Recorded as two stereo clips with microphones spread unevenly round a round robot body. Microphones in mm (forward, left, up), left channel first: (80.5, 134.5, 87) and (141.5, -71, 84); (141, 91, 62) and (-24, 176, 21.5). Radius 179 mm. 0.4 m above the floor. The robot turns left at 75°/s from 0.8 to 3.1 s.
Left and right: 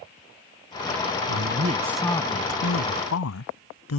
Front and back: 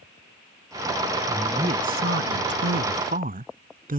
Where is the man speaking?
110° right; by 4.0 s 110° left.